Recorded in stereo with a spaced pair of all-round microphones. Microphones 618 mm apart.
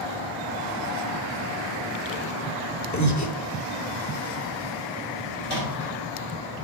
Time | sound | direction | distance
2.9 | breathing | 30° left (ahead or behind) | 1.0 m
5.4 | a microwave | 40° left (ahead or behind) | 6 m